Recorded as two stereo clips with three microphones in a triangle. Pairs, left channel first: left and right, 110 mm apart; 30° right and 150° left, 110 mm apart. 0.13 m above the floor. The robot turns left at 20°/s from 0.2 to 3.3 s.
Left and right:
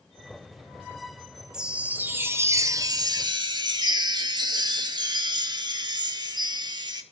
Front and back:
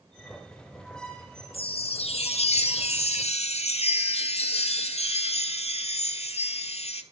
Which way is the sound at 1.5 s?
5° right.